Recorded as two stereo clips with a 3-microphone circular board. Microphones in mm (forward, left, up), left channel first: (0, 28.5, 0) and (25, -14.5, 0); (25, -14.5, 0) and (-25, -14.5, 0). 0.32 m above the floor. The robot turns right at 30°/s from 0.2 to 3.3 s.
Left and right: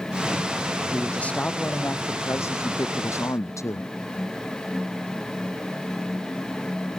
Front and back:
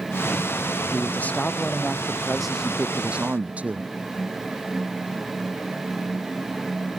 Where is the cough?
No cough in this recording.